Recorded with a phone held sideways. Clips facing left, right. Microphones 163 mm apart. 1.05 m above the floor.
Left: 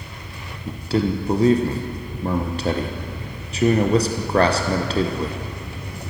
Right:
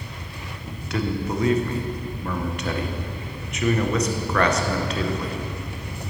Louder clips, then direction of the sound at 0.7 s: Left 6 dB; 30° left (ahead or behind).